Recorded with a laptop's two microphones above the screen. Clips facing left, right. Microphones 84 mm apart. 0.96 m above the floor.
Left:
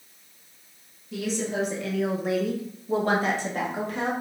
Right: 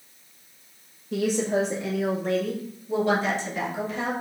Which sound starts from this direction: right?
A woman speaking, at 1.1 s.